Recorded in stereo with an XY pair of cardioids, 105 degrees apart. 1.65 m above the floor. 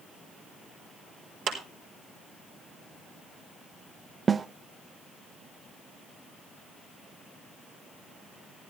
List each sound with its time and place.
1.5 s a clap: 65° right, 4 m
4.3 s a snare drum: 30° right, 0.5 m